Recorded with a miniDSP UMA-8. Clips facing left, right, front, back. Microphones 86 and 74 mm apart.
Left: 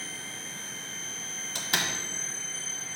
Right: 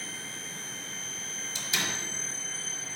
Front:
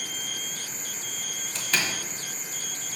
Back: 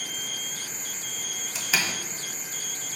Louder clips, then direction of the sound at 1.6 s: Left 3 dB, even; 95° left.